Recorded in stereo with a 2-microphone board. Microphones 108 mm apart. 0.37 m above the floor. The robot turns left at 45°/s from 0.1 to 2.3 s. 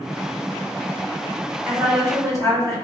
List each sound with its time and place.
1.6 s a woman speaking: 25° right (ahead or behind), 1.6 m; by 2.8 s 35° right (ahead or behind), 1.6 m